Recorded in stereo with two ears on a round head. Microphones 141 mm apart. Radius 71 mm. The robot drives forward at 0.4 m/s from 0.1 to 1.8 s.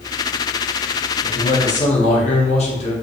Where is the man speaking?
55° left (ahead or behind), 0.7 m; by 2.9 s 45° left (ahead or behind), 0.8 m.